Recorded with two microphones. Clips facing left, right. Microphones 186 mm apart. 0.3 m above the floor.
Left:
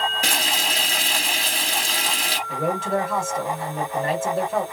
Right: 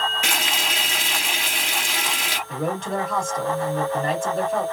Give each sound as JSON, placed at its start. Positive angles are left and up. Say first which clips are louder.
{"t": 0.2, "sound": "frying", "louder": "left 1 dB", "side_deg": 40, "distance_m": 1.3}
{"t": 2.5, "sound": "a man speaking", "louder": "left 2 dB", "side_deg": 5, "distance_m": 1.3}